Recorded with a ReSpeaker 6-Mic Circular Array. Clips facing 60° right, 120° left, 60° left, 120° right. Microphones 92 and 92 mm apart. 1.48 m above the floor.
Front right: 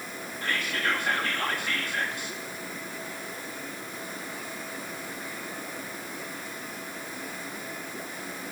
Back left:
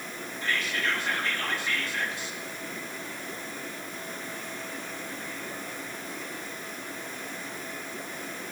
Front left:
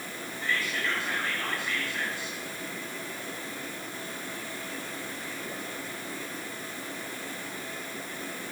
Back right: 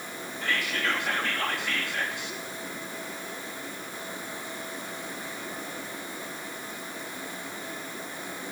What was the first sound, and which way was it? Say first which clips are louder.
Whispering: front right 1 dB, back right 2 dB; 95° right.